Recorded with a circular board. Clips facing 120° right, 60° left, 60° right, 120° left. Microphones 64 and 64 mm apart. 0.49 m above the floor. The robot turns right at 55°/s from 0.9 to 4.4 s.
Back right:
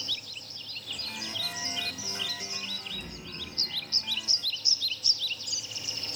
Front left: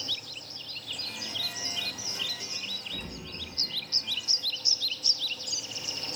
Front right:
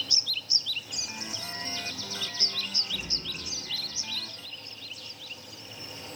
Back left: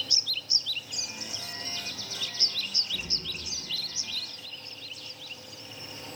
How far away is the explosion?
About 0.7 m.